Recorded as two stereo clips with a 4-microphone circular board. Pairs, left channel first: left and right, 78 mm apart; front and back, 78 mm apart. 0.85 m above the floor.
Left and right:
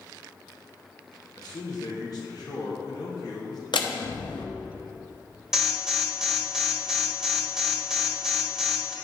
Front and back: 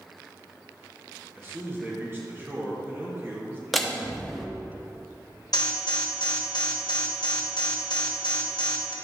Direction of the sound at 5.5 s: 5° right.